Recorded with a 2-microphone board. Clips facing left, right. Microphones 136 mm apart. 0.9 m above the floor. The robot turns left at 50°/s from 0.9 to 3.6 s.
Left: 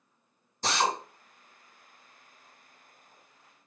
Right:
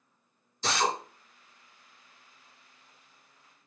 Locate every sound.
0.6 s a drill: 50° left (ahead or behind), 1.7 m; by 0.9 s 45° left (ahead or behind), 1.7 m